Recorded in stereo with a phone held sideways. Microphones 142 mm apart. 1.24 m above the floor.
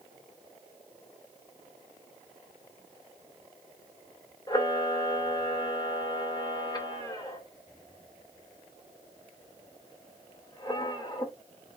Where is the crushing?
I don't hear crushing.